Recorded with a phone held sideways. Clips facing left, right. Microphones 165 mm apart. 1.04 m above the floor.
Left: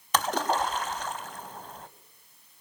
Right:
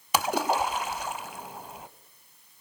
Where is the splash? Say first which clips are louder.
Right 1 dB; 10° right (ahead or behind), 0.9 m.